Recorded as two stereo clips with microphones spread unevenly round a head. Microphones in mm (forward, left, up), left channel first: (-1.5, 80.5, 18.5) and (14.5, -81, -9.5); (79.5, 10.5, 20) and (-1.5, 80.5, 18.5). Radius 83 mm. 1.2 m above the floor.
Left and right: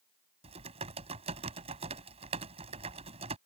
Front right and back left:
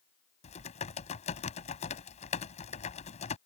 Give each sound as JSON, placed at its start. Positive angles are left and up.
{"t": 0.4, "sound": "typing on a keyboard", "azimuth_deg": -30}